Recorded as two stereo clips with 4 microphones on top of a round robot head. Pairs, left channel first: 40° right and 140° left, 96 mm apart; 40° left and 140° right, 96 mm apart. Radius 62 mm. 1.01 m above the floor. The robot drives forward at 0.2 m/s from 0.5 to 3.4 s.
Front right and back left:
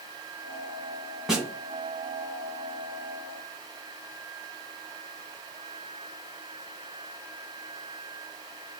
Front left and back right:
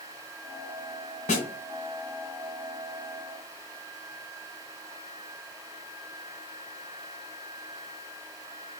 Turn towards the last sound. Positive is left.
turn(degrees=75)